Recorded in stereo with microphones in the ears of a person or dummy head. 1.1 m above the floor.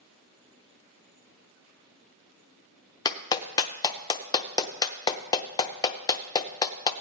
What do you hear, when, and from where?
3.0 s a clap: 20° left (ahead or behind), 0.6 m